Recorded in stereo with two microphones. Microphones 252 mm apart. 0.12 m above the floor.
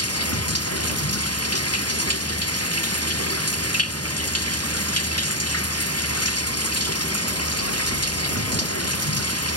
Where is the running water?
75° left (ahead or behind).